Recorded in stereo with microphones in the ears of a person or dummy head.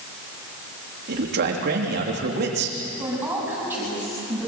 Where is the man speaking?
55° right (ahead or behind), 3 m.